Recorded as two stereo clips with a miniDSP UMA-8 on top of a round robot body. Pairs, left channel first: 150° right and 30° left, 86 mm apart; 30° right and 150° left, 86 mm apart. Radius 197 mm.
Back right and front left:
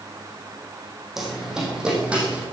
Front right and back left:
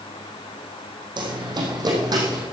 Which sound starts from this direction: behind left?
Running footsteps, at 1.2 s.